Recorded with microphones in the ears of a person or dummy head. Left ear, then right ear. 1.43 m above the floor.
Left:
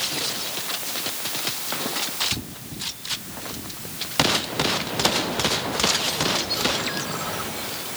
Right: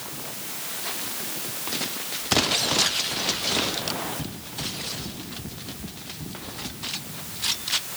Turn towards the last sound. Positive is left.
No sound to turn to.